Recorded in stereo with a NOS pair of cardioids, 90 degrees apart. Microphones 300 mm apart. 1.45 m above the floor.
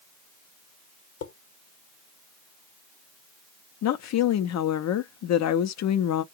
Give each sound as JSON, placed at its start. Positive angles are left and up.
{"t": 1.2, "sound": "dishes clattering", "azimuth_deg": 55, "distance_m": 1.2}
{"t": 3.8, "sound": "a woman speaking", "azimuth_deg": 65, "distance_m": 0.8}